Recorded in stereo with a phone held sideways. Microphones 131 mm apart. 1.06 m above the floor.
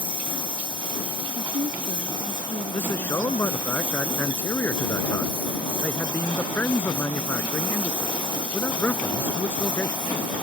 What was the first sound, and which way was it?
A lawn mower, 35° right (ahead or behind).